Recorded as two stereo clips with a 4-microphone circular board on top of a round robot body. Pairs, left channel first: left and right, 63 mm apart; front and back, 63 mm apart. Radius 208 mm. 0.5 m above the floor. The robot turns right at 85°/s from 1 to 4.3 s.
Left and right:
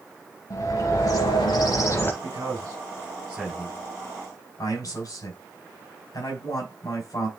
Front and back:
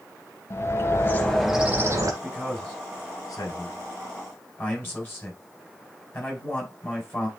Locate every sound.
0.5 s a bird: 55° left, 0.9 m; by 2.1 s 150° left, 0.9 m
2.2 s a man speaking: 120° right, 4 m; by 7.3 s 60° left, 4 m